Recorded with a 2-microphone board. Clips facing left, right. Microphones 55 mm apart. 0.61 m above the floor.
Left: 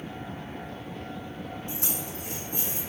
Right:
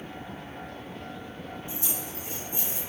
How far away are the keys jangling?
About 3 m.